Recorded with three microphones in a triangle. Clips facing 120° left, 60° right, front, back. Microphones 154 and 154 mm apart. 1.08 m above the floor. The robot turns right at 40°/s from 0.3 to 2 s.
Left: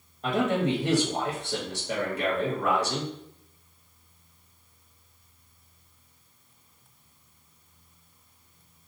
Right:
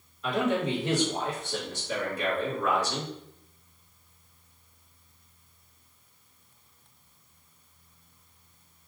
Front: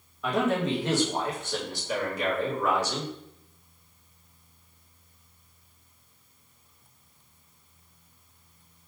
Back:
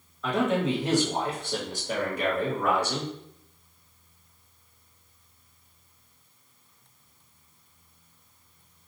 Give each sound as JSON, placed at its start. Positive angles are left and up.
{"t": 0.2, "sound": "a man speaking", "azimuth_deg": 80, "distance_m": 1.2}